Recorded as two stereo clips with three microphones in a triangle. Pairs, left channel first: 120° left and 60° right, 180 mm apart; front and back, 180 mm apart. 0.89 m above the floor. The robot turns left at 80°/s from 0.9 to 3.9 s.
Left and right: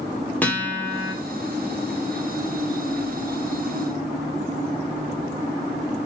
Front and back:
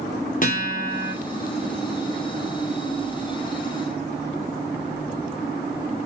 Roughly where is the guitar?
Ahead left.